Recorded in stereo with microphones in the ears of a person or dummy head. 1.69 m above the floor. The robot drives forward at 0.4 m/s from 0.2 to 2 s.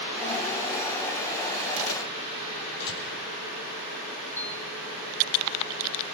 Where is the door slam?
55° left (ahead or behind), 4 m.